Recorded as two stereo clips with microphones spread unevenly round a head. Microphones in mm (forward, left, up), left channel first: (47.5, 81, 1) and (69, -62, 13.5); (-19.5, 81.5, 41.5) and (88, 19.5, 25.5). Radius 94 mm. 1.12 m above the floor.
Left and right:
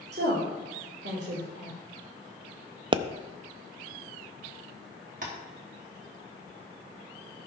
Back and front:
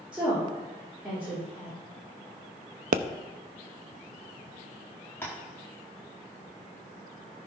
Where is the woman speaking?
115° right, 3.5 m.